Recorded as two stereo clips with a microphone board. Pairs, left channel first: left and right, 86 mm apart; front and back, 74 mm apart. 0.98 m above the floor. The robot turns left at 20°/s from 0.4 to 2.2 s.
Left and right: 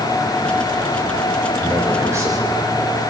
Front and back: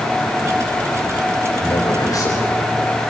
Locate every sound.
1.6 s a man speaking: 25° right, 4 m; by 3.1 s 35° right, 4 m